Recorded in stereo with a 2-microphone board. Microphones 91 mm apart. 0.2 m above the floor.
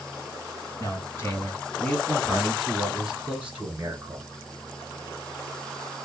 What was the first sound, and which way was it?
A man speaking, 40° left (ahead or behind).